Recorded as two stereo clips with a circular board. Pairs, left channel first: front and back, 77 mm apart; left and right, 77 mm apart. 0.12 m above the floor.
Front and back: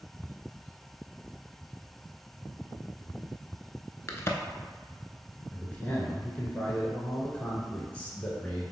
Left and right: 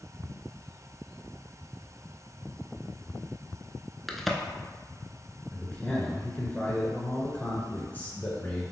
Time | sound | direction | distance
4.1 | a crack | straight ahead | 0.6 m
5.5 | a man speaking | 50° left | 1.3 m